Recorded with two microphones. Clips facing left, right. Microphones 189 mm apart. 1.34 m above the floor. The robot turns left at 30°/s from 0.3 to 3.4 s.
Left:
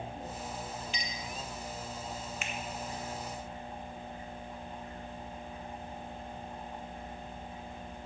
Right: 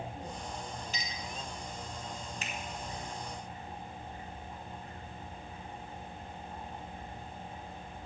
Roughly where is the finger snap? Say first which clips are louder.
Left 2 dB; right.